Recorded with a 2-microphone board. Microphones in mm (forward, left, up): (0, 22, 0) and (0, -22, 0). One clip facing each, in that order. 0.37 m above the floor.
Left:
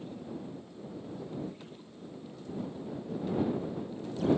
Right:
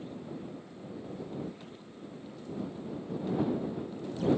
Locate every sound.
Only background noise.